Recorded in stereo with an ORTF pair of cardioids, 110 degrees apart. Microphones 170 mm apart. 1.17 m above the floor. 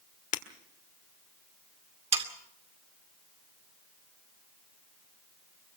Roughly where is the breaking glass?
Ahead left.